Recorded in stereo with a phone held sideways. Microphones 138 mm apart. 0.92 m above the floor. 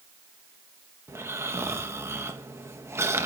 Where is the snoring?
20° right (ahead or behind), 1.3 m.